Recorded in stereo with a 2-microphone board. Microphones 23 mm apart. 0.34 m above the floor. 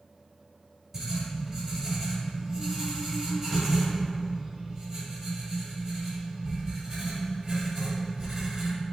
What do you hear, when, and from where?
0.9 s writing: 20° right (ahead or behind), 1.4 m